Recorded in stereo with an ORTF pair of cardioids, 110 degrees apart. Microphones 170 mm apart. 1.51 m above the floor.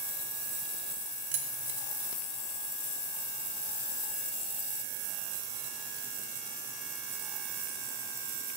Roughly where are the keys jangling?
Ahead right.